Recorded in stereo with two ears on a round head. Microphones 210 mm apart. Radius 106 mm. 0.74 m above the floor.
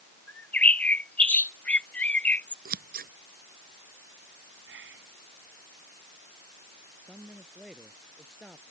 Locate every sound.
0.3 s a bird: 5° left (ahead or behind)
2.6 s scissors: 40° right (ahead or behind)
4.7 s whispering: 55° right (ahead or behind)
7.0 s a man speaking: centre (ahead or behind)